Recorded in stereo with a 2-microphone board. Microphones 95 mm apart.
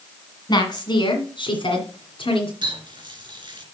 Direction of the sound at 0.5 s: 45° left (ahead or behind).